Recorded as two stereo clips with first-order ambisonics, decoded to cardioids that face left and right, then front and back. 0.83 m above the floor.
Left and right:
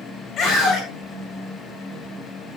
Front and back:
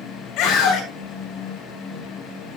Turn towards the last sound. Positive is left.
turn(degrees=30)